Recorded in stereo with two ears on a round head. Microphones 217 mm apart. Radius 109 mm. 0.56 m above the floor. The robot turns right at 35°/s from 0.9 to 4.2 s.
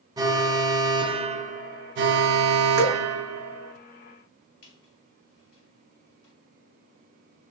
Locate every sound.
0.2 s an alarm: 165° right, 0.6 m; by 3.8 s 65° right, 0.6 m
2.8 s dripping: 25° right (ahead or behind), 1.9 m; by 3.0 s 15° right (ahead or behind), 1.9 m
4.6 s a squeak: 60° left (ahead or behind), 2.5 m